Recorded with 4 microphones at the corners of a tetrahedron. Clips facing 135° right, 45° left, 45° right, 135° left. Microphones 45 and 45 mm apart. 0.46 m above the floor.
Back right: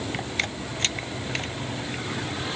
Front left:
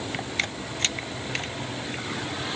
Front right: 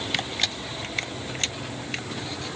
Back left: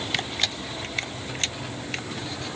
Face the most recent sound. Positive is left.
No sound to turn to.